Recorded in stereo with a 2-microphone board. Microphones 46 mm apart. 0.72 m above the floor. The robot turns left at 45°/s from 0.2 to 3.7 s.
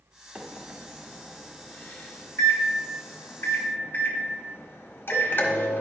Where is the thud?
No thud in this recording.